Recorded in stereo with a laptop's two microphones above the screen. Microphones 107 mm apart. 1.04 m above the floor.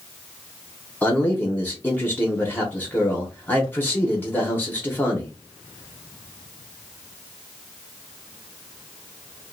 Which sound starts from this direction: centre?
A man speaking, at 1.0 s.